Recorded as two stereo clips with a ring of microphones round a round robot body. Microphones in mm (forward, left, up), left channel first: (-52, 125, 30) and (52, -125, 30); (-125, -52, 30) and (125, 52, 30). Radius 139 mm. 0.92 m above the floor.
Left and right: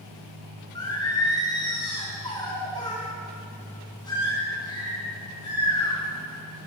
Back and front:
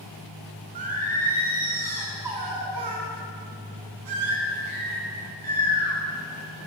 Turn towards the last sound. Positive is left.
turn(degrees=35)